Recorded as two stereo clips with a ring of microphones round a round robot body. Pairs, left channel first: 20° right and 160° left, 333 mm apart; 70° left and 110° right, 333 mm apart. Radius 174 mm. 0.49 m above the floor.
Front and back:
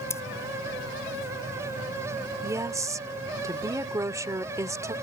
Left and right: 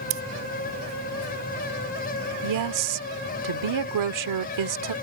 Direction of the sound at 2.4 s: 120° right.